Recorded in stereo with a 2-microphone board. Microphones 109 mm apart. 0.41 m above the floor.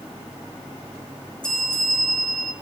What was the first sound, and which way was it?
A bell, 5° left (ahead or behind).